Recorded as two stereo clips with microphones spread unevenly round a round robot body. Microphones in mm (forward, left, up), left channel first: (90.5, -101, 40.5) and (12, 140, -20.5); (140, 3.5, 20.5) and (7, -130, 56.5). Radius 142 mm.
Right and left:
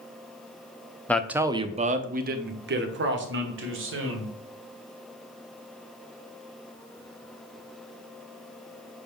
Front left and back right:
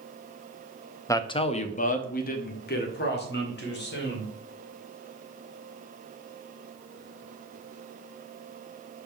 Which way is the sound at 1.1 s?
35° left.